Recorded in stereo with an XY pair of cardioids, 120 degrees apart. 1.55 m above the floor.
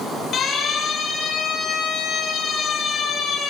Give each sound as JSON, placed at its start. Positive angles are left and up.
{"t": 0.3, "sound": "a siren", "azimuth_deg": 45, "distance_m": 9.5}